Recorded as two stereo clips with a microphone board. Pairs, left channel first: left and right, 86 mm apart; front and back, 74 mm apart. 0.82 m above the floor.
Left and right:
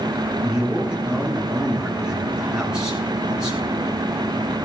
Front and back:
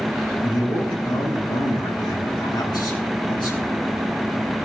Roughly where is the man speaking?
Ahead.